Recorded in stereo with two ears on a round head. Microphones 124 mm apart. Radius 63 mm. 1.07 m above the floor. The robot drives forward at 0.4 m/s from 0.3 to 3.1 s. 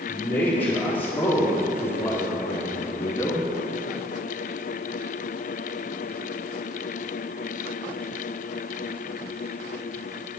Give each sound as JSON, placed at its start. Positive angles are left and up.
{"t": 0.1, "sound": "a man speaking", "side_deg": 15, "distance_m": 2.5}